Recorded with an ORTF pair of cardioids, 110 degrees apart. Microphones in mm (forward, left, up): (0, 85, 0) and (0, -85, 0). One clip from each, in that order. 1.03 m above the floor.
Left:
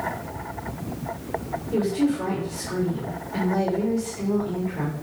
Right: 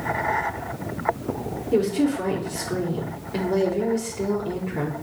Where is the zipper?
No zipper in this recording.